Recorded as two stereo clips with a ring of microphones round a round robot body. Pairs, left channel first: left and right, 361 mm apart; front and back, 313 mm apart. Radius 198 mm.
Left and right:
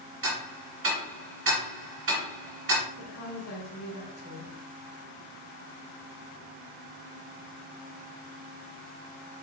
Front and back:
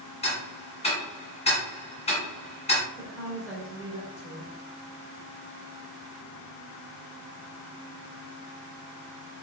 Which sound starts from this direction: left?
A woman speaking, at 3.0 s.